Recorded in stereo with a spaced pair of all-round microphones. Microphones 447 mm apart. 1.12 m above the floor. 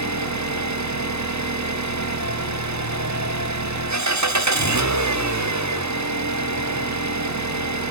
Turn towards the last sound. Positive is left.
turn(degrees=-40)  # may be behind; listen again after turning